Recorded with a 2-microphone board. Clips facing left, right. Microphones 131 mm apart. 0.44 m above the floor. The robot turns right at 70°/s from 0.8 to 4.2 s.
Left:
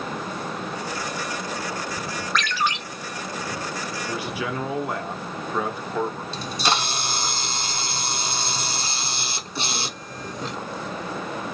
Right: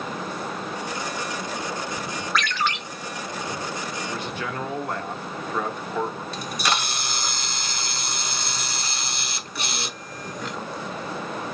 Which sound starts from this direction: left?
A camera shutter, at 6.3 s.